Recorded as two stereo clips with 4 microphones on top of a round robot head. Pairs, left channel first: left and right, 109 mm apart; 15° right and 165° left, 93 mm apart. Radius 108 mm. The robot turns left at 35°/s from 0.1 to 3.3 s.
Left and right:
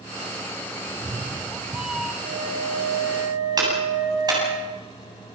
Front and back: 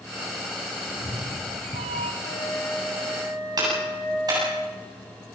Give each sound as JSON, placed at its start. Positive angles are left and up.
{"t": 0.9, "sound": "a cat meowing", "azimuth_deg": -140, "distance_m": 1.8}
{"t": 2.2, "sound": "a flute", "azimuth_deg": -70, "distance_m": 6.0}
{"t": 3.6, "sound": "a clap", "azimuth_deg": -145, "distance_m": 8.5}